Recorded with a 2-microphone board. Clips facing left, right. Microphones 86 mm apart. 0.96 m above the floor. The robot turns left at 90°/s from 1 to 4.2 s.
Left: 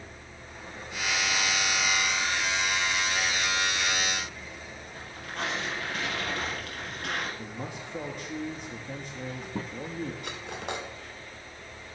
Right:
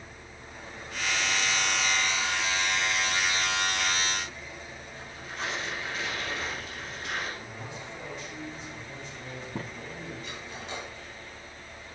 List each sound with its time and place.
5.0 s tearing paper: 70° left (ahead or behind), 5.5 m
7.4 s a man speaking: 55° left (ahead or behind), 1.3 m
10.2 s cutlery clinking: 65° left (ahead or behind), 2.0 m